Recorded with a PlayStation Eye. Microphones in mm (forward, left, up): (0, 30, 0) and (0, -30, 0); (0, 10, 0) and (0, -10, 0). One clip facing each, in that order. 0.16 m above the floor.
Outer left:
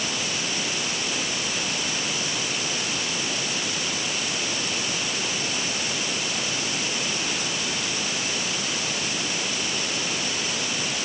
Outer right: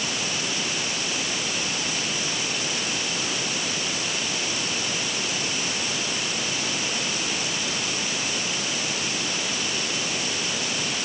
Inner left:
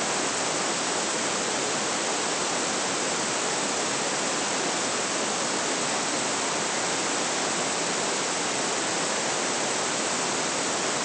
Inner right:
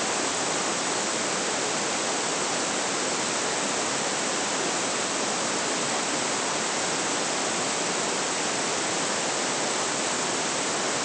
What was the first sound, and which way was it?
Only background noise.